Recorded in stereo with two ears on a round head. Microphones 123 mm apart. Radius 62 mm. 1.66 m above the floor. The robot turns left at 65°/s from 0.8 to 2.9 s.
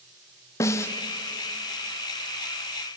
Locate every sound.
0.6 s a snare drum: 20° left (ahead or behind), 0.7 m; by 0.9 s 10° left (ahead or behind), 0.7 m